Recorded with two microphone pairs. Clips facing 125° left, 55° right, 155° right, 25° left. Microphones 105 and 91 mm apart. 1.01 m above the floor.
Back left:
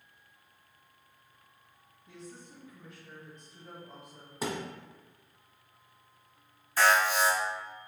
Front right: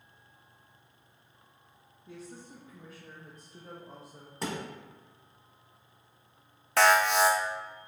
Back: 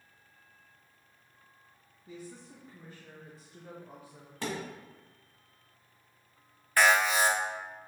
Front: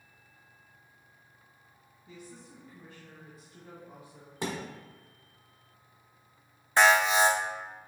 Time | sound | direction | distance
2.1 | a woman speaking | 100° right | 0.7 m
4.4 | a thud | 55° left | 0.9 m
6.8 | an alarm | 45° right | 0.6 m